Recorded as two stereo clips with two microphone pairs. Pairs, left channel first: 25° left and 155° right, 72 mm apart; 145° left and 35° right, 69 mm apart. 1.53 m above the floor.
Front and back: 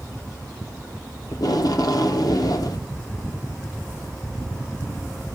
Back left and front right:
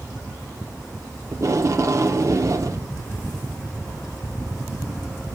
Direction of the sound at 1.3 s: 5° left.